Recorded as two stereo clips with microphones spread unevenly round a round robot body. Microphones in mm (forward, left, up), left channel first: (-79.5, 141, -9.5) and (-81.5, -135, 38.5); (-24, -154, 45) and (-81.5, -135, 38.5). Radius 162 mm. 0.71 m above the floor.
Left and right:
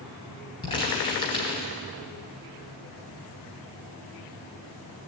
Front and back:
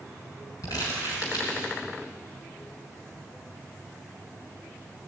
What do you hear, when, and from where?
0.6 s crumpling: 15° left, 2.5 m